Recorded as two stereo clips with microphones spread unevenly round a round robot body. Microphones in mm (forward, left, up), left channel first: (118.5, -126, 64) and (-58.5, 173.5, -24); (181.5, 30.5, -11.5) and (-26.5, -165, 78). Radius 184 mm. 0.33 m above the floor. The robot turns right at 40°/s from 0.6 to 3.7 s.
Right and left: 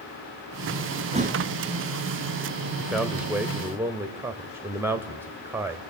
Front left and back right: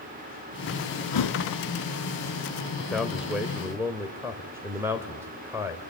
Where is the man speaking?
70° left, 1.2 m; by 5.8 s 105° left, 1.2 m.